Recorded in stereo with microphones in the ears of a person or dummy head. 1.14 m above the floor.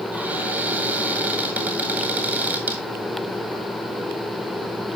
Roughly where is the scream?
No scream in this recording.